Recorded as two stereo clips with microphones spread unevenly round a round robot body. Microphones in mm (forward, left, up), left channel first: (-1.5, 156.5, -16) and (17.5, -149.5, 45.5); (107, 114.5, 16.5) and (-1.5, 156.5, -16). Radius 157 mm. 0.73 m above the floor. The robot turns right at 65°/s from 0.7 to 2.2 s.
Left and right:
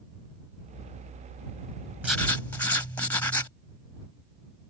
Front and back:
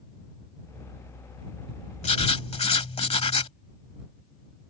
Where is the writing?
Straight ahead; by 3.5 s 10° left.